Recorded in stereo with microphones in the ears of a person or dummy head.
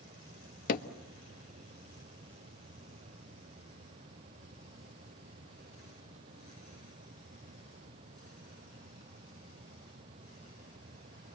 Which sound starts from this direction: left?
Hammering, at 0.7 s.